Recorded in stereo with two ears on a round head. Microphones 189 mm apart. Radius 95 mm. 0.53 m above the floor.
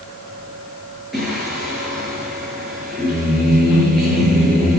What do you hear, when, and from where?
1.1 s singing: centre (ahead or behind), 6 m